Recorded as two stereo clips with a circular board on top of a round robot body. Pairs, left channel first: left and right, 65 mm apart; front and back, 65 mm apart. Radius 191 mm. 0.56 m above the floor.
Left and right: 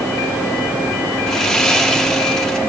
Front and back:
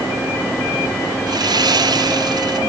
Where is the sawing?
175° left, 4 m.